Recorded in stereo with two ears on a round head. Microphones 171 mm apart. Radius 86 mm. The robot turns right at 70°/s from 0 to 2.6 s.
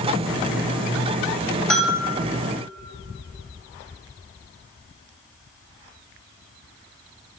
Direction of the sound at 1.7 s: 5° left (ahead or behind).